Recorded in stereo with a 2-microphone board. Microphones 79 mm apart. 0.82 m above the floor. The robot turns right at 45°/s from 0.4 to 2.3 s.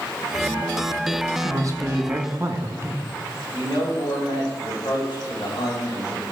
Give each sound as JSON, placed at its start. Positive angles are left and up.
{"t": 1.4, "sound": "a man speaking", "azimuth_deg": -90, "distance_m": 0.9}
{"t": 3.5, "sound": "a man speaking", "side_deg": 75, "distance_m": 3.5}